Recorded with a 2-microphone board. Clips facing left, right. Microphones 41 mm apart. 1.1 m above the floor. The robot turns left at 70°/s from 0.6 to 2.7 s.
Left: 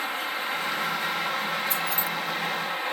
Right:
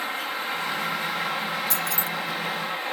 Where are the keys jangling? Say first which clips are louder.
Even; 75° right (ahead or behind), 1.0 m; by 2.1 s 50° right (ahead or behind), 1.0 m.